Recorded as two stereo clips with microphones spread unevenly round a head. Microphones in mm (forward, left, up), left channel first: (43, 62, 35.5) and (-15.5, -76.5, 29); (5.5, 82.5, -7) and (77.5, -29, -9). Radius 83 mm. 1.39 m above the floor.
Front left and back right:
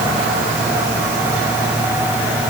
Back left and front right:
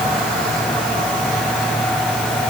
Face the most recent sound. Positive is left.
No sound to turn to.